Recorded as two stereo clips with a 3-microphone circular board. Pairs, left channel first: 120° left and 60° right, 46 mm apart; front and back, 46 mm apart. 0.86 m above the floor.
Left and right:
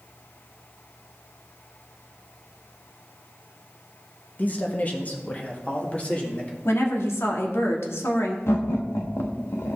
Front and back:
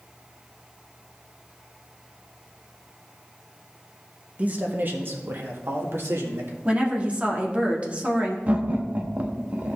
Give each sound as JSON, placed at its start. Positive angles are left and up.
{"t": 4.4, "sound": "a man speaking", "azimuth_deg": 145, "distance_m": 1.2}
{"t": 6.7, "sound": "a woman speaking", "azimuth_deg": 120, "distance_m": 1.7}
{"t": 8.5, "sound": "laughter", "azimuth_deg": 130, "distance_m": 1.3}